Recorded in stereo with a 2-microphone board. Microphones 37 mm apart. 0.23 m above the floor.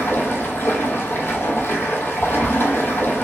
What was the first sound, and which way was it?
Running water, 80° left.